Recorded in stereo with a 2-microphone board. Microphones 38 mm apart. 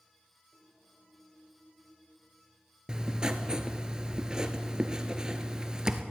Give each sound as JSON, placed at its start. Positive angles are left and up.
{"t": 2.9, "sound": "writing", "side_deg": -20, "distance_m": 0.8}